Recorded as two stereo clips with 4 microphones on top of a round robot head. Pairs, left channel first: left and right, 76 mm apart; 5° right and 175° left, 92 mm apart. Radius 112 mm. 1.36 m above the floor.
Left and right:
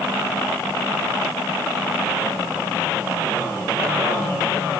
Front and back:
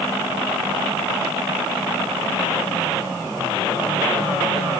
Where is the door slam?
No door slam in this recording.